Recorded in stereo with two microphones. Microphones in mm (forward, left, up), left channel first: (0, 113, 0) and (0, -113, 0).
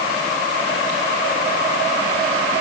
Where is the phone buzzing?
I don't hear a phone buzzing.